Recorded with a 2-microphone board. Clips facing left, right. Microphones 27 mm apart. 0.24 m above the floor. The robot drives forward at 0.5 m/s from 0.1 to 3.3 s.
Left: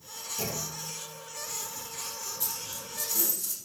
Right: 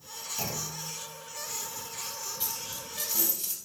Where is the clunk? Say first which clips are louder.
Left 1 dB; 20° right (ahead or behind), 1.7 m.